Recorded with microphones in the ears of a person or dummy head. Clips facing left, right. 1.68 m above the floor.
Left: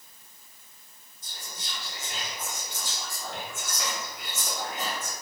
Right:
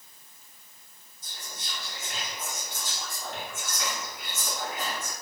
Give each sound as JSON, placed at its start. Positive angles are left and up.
{"t": 1.2, "sound": "whispering", "side_deg": 15, "distance_m": 0.7}